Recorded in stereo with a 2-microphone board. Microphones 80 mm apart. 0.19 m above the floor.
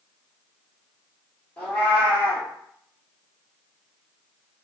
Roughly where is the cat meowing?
Left.